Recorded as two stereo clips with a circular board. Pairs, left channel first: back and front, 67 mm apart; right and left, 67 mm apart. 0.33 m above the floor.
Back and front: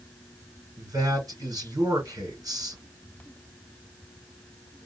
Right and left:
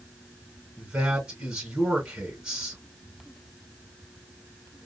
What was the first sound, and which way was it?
A man speaking, 15° left.